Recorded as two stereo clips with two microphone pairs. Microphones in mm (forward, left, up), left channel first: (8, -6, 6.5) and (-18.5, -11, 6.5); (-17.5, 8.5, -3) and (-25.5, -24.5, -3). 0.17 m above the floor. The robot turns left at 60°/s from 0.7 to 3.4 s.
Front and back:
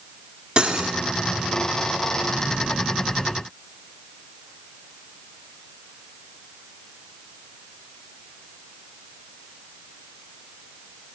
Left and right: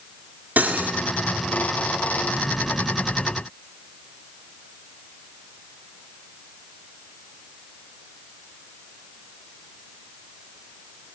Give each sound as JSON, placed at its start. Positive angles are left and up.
{"t": 0.6, "sound": "cutlery clinking", "azimuth_deg": -120, "distance_m": 1.4}